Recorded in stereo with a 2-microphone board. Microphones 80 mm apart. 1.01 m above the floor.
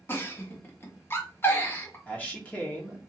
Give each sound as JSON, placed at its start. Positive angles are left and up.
{"t": 0.1, "sound": "a giggle", "side_deg": 30, "distance_m": 0.8}
{"t": 2.1, "sound": "a man speaking", "side_deg": 15, "distance_m": 1.0}